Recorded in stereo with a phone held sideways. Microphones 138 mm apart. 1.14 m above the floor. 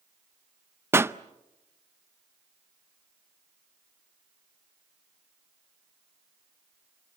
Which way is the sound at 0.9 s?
20° right (ahead or behind).